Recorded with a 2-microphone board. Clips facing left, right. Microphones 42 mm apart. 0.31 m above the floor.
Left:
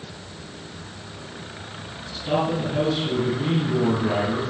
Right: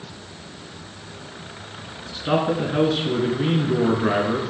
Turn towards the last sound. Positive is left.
turn(degrees=-65)  # may be behind; listen again after turning